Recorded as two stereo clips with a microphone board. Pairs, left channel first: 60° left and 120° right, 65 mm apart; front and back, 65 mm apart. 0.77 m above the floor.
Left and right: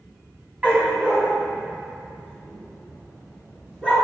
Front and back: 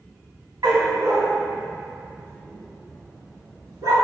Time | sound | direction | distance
0.6 | a dog barking | 170° left | 2 m